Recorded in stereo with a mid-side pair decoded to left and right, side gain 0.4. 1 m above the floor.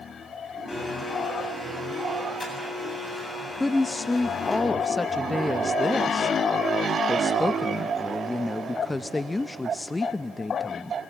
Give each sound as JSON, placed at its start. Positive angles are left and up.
{"t": 0.7, "sound": "a blender", "azimuth_deg": 25, "distance_m": 7.0}
{"t": 3.6, "sound": "a woman speaking", "azimuth_deg": 20, "distance_m": 0.5}